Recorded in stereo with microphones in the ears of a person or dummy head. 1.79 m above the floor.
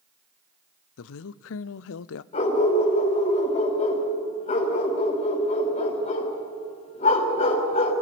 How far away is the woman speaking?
About 0.6 m.